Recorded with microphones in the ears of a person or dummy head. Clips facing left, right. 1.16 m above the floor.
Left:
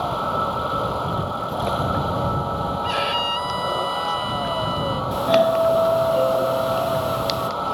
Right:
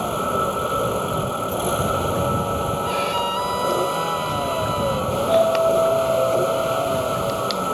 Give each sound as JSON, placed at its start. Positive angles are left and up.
{"t": 0.0, "sound": "a vehicle", "side_deg": -35}
{"t": 2.8, "sound": "a violin", "side_deg": 10}
{"t": 5.1, "sound": "a doorbell", "side_deg": 15}